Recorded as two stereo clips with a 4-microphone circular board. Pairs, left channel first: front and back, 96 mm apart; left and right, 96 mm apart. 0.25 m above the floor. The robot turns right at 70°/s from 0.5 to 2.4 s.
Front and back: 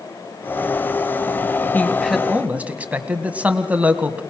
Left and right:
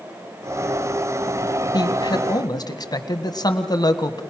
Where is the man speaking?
65° left, 1.7 m; by 4.2 s 110° left, 1.7 m.